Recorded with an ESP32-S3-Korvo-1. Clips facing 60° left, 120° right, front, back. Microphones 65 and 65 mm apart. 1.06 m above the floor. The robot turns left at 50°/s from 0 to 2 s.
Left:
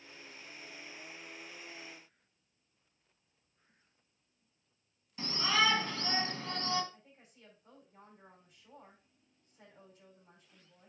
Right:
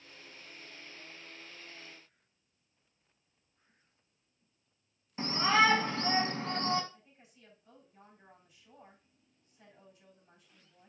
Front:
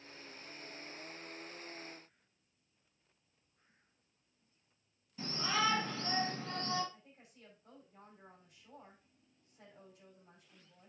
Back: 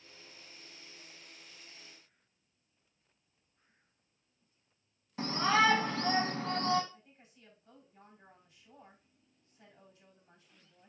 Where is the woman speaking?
20° left, 5.5 m.